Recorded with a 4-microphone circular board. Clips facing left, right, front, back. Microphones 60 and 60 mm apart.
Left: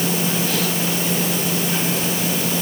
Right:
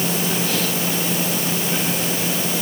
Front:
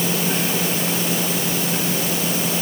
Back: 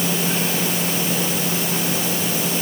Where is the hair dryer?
No hair dryer in this recording.